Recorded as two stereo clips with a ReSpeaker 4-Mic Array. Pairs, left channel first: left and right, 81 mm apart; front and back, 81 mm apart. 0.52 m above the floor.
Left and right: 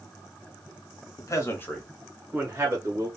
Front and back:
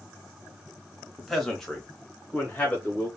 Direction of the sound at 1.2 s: 90° left.